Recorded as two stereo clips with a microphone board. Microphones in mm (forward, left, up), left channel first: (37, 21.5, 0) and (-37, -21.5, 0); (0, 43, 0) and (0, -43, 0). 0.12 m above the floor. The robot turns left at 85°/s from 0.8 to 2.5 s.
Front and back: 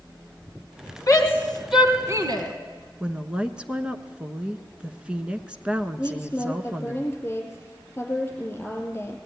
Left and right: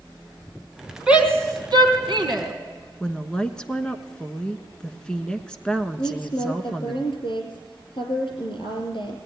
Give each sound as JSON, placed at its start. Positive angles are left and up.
{"t": 1.1, "sound": "a shout", "azimuth_deg": -10, "distance_m": 3.5}
{"t": 3.0, "sound": "a woman speaking", "azimuth_deg": 155, "distance_m": 1.1}
{"t": 6.0, "sound": "a woman speaking", "azimuth_deg": 90, "distance_m": 4.0}